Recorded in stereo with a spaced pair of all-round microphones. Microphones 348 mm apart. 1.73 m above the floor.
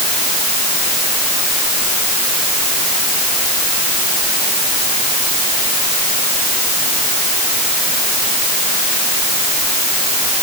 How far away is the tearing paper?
No tearing paper in this recording.